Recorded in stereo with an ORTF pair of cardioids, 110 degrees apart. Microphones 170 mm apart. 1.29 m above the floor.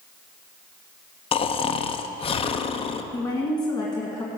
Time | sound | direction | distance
1.3 | snoring | 35° left | 0.6 m
3.1 | a woman speaking | 25° left | 1.6 m